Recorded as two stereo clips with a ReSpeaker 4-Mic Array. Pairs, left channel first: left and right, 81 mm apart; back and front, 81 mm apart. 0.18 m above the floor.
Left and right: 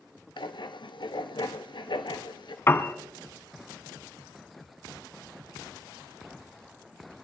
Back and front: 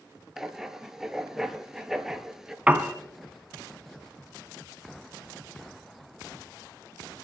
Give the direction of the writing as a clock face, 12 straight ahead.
9 o'clock.